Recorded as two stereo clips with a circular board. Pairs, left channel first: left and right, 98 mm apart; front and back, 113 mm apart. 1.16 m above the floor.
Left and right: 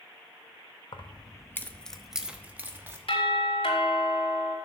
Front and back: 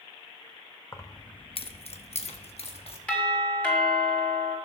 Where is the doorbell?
80° left, 3 m.